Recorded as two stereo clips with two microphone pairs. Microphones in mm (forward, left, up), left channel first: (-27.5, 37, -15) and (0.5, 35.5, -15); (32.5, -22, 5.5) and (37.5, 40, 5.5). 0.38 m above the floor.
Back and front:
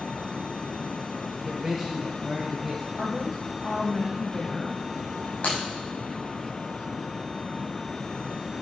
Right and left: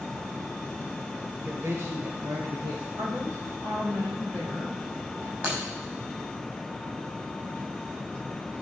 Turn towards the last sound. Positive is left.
turn(degrees=145)